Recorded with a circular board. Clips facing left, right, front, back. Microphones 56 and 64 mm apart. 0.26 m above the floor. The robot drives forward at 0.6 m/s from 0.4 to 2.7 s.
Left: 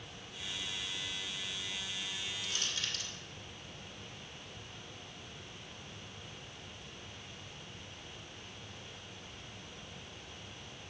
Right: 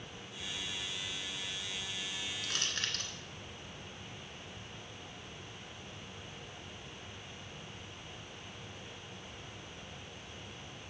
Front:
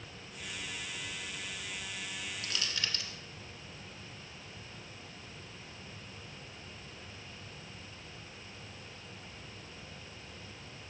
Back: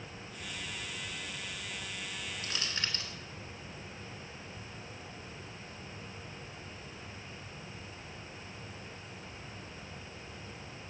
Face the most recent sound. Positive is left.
turn(degrees=-125)